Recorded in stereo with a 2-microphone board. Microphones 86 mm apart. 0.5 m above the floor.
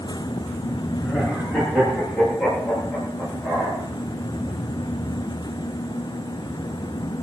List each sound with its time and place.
1.0 s laughter: centre (ahead or behind), 9.5 m; by 3.8 s 5° right (ahead or behind), 13.5 m